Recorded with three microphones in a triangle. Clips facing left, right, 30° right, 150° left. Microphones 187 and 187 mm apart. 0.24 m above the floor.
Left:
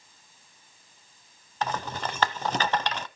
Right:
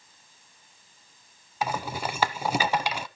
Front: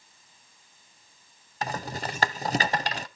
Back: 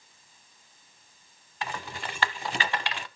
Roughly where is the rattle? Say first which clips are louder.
Right 1 dB, front 4 dB; ahead.